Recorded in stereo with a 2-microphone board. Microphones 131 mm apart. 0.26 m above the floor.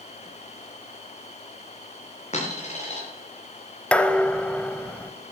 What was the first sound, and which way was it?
A dropped coin, 55° left (ahead or behind).